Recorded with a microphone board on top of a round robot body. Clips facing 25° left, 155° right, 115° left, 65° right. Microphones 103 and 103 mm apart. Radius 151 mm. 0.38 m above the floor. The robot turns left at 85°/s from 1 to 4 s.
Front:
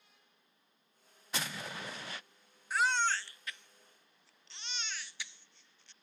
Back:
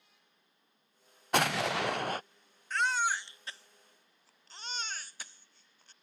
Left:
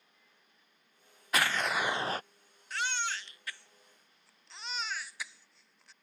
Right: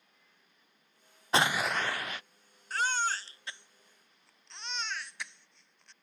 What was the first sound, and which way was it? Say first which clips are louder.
An explosion: back 12 dB, right 2 dB; 130° right.